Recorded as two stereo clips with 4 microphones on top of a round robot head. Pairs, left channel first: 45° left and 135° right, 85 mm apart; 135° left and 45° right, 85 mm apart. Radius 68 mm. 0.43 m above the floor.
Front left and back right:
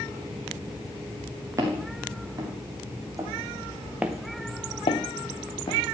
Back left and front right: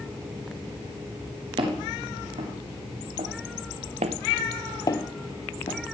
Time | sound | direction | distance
1.6 | footsteps | 75° right | 4 m